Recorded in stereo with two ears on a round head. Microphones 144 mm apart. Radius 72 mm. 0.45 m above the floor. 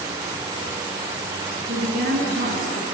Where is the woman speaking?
55° right (ahead or behind), 6 m.